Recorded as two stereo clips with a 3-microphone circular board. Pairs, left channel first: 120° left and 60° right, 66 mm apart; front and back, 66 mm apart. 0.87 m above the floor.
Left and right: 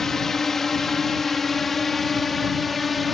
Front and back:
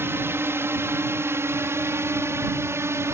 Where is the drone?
155° right; by 3.1 s 150° right.